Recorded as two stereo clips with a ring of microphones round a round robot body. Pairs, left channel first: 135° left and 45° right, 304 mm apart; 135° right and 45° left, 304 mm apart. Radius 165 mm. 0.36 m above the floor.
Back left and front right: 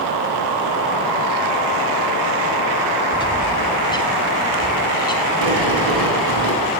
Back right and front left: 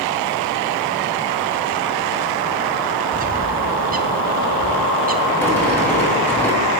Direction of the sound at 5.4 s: 50° right.